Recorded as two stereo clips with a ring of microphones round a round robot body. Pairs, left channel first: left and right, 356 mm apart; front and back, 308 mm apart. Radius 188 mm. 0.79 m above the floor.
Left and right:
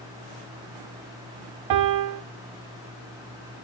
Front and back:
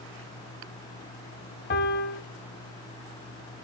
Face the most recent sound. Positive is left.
turn(degrees=-60)